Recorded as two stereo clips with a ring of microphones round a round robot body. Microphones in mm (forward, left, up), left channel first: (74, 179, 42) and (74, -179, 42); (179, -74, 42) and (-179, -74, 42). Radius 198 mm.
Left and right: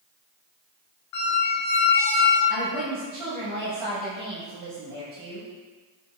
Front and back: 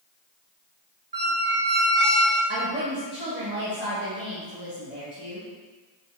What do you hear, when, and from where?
1.1 s a squeak: 115° left, 0.8 m
2.5 s a woman speaking: 120° right, 1.1 m